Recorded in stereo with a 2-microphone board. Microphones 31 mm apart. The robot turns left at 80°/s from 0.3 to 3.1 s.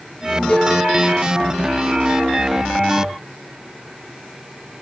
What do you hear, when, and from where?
0.5 s a cowbell: 25° left (ahead or behind), 6.5 m; by 0.8 s 45° left (ahead or behind), 6.5 m